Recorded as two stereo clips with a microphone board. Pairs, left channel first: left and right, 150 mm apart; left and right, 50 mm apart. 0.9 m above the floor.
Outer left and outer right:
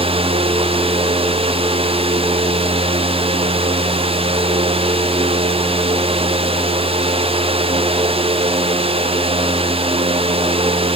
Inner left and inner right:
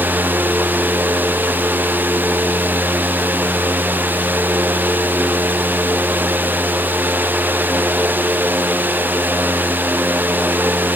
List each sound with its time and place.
Only background noise.